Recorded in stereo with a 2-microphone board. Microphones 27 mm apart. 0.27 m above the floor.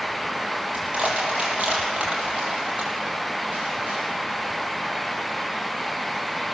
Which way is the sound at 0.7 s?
50° right (ahead or behind).